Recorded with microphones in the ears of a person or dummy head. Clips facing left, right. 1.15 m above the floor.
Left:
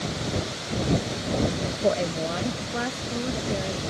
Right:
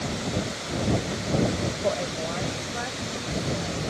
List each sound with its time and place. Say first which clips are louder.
1.8 s a woman speaking: left 6 dB; 35° left (ahead or behind); by 3.8 s 50° left (ahead or behind)